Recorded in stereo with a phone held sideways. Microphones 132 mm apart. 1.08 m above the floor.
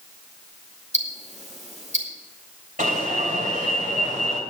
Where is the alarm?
80° right, 3 m.